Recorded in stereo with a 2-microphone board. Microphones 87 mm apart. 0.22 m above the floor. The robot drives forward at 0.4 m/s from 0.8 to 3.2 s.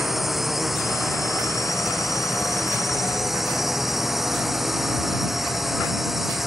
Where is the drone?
Centre (ahead or behind).